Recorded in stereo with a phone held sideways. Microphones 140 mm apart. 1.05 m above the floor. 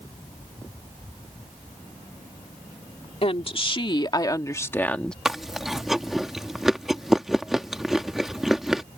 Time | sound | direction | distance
3.2 | a woman speaking | 45° left (ahead or behind) | ?
5.2 | chewing | 5° right (ahead or behind) | ?